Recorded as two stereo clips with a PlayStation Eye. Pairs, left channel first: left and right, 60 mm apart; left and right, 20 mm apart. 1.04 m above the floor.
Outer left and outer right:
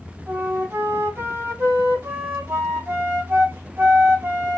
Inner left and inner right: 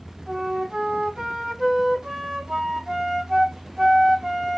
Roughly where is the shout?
I don't hear a shout.